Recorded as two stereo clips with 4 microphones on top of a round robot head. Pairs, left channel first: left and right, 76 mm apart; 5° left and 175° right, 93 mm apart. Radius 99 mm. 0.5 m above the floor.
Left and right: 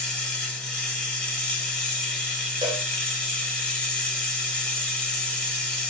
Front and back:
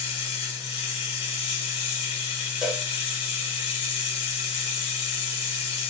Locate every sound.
0.0 s running water: 15° left, 1.1 m
2.6 s a cowbell: 95° right, 0.8 m